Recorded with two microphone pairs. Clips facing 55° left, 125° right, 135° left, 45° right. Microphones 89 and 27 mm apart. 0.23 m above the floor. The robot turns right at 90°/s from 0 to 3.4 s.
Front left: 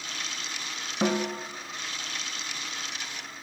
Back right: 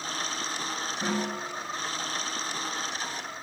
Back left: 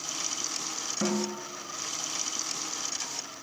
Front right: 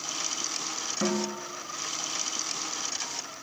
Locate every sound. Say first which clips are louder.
1.0 s a snare drum: front left 5 dB, front right 1 dB; 40° left, 2 m; by 1.5 s 80° left, 2 m